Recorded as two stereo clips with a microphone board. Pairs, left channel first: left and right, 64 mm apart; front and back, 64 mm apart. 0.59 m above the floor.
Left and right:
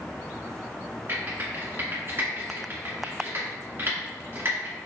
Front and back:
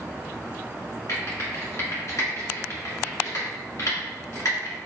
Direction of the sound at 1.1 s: 35° right.